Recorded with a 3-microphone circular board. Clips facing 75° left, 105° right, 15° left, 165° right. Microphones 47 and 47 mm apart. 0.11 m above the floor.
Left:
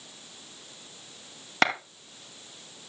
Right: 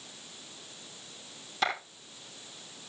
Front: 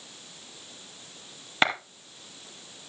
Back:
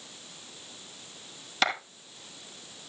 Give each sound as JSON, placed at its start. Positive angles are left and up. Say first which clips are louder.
{"t": 1.6, "sound": "a clap", "louder": "left 6 dB, front 3 dB", "azimuth_deg": 75, "distance_m": 2.5}